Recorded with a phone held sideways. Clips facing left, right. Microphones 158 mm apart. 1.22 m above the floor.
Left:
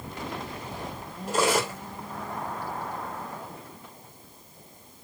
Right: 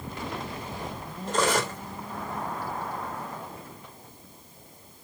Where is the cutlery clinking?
10° left (ahead or behind), 1.4 m.